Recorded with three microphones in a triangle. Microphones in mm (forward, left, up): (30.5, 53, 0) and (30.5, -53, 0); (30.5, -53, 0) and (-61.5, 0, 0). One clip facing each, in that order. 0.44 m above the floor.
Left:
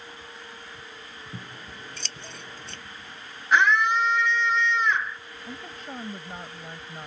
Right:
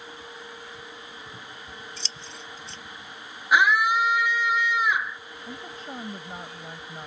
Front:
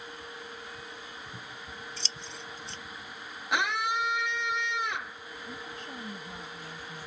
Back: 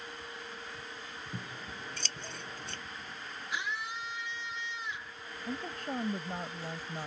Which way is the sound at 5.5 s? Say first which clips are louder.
Even, back 6 dB; straight behind.